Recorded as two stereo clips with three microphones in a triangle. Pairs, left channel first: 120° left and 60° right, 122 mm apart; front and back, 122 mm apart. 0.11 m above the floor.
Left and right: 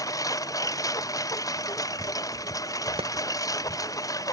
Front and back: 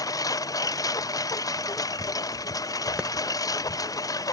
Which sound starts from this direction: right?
A clap, at 3.0 s.